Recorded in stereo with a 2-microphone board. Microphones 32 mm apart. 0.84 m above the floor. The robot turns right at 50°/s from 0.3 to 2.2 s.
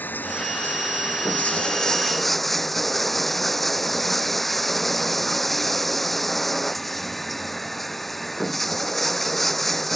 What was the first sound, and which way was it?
Running water, 80° left.